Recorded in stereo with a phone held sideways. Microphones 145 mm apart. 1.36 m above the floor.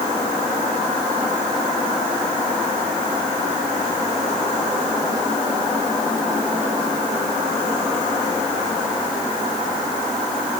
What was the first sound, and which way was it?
Only background noise.